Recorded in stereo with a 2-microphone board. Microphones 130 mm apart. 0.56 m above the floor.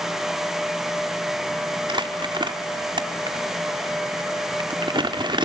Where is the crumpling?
35° right (ahead or behind), 1.2 m.